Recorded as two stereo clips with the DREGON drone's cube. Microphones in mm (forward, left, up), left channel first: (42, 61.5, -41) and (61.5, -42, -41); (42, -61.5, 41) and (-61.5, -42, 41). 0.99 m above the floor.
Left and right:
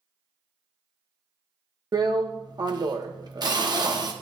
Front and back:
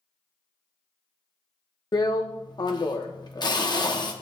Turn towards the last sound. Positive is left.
turn(degrees=-45)